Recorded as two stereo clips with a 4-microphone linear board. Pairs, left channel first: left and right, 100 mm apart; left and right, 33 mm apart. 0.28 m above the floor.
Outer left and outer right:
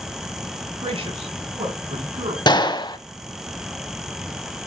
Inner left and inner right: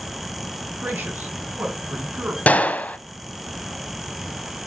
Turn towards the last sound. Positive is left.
turn(degrees=45)  # may be behind; listen again after turning